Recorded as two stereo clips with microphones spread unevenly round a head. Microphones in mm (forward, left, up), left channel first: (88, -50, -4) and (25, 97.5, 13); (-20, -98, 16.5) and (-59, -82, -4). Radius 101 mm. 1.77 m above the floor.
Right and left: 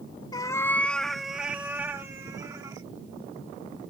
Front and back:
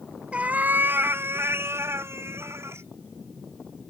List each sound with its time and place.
0.3 s a cat meowing: 110° right; by 2.9 s 175° right